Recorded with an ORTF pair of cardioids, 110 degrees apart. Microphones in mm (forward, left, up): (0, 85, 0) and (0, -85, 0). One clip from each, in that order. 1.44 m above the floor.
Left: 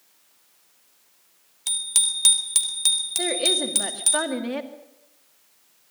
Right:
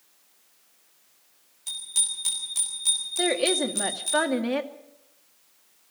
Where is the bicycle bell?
60° left, 3.5 m; by 4.2 s 80° left, 7 m.